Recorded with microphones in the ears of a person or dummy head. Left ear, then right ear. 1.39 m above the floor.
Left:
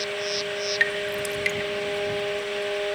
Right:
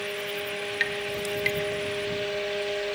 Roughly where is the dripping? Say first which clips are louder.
Left 3 dB; centre.